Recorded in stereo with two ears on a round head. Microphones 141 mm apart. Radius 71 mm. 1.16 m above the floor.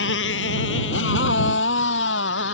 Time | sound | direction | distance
0.0 | a motorcycle | 85° left | ?